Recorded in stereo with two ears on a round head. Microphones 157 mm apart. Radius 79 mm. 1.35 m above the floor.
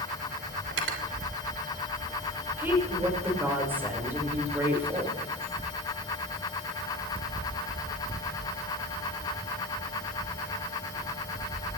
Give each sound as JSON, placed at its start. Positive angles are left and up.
{"t": 0.7, "sound": "cutlery clinking", "side_deg": -80, "distance_m": 3.0}
{"t": 2.6, "sound": "a woman speaking", "side_deg": -10, "distance_m": 5.5}